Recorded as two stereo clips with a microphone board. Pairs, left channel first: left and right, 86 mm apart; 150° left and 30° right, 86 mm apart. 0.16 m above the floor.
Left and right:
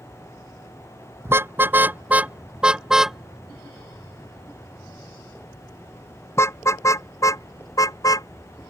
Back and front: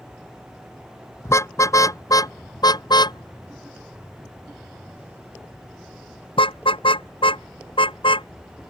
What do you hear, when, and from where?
1.2 s a car horn: 150° right; by 8.3 s 135° left